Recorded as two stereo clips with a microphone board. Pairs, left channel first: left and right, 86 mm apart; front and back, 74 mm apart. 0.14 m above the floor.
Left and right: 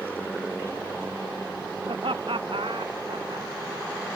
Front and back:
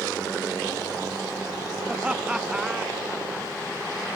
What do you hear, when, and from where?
1.9 s laughter: 105° right; by 3.5 s 95° right